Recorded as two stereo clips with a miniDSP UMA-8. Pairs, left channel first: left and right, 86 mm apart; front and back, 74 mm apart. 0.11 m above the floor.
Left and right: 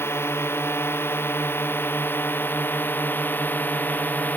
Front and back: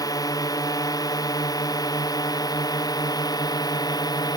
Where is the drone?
30° left; by 4.4 s 20° left.